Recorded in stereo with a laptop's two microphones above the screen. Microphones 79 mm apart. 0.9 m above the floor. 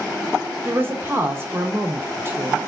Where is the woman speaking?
30° right (ahead or behind), 0.8 m.